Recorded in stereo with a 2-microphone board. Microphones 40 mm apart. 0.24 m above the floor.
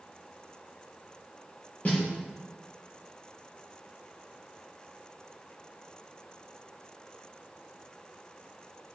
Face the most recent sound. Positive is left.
turn(degrees=40)  # may be behind; listen again after turning